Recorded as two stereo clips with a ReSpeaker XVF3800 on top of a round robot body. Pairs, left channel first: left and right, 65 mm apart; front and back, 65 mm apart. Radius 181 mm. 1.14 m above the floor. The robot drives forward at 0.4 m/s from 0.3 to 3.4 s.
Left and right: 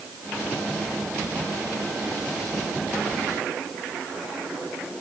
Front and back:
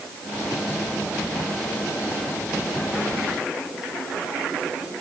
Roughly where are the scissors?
I don't hear scissors.